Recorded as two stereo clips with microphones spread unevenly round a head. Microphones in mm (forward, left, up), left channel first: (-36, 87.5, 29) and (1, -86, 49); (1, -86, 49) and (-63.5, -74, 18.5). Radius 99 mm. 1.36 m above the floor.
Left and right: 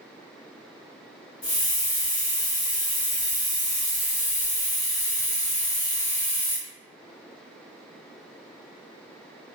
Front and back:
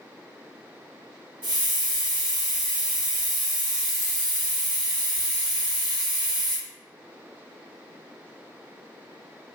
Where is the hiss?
170° left, 1.8 m.